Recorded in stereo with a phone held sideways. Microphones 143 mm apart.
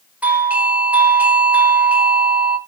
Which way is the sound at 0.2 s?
10° right (ahead or behind).